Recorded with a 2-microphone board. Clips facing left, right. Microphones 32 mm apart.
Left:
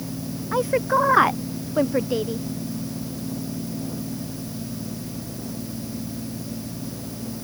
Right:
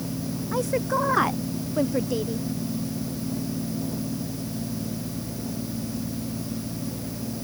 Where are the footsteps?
I don't hear footsteps.